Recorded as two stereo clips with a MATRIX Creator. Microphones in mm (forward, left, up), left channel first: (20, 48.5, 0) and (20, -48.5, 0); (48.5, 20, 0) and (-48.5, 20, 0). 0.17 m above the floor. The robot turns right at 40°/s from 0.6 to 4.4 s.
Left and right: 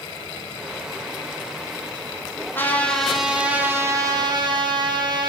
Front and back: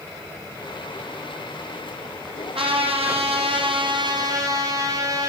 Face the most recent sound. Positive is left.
turn(degrees=-130)